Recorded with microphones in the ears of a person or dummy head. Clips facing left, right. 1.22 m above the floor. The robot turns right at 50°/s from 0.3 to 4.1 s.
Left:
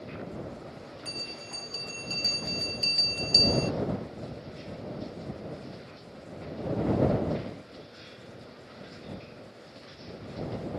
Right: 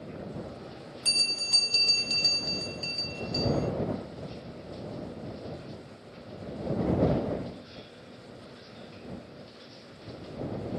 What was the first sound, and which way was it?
A bell, 75° right.